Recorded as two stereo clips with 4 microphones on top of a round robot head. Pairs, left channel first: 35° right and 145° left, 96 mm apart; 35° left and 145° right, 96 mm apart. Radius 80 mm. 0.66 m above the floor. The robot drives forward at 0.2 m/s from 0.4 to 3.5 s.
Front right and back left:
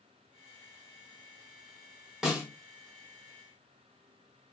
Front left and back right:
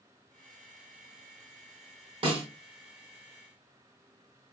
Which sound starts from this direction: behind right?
A snare drum, at 2.2 s.